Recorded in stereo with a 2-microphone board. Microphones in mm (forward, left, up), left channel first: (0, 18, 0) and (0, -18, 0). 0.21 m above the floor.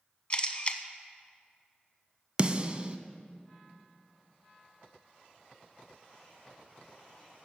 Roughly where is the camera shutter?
Left.